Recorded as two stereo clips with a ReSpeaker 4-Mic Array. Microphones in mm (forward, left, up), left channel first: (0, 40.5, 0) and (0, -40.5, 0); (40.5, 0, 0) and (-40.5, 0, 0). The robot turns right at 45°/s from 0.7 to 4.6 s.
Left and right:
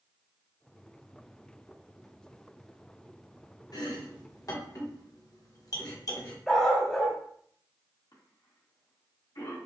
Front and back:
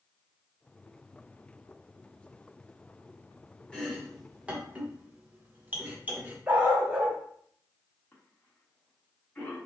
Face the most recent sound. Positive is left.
turn(degrees=70)